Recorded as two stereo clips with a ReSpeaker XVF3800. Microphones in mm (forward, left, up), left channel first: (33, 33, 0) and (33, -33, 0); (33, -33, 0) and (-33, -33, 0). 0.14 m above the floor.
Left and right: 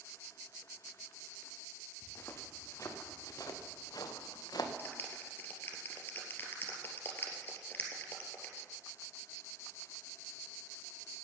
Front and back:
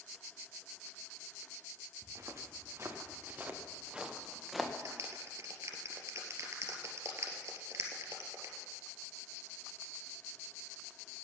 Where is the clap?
145° left, 3 m.